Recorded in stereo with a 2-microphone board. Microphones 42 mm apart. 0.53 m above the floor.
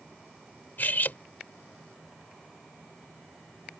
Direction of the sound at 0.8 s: 50° left (ahead or behind).